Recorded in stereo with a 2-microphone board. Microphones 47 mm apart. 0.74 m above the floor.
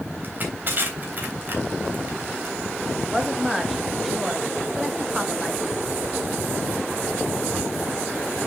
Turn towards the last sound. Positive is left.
turn(degrees=-5)  # may be behind; listen again after turning